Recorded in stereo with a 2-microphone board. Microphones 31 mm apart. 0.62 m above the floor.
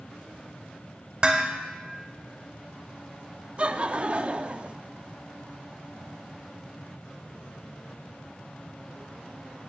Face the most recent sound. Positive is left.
turn(degrees=-40)  # may be behind; listen again after turning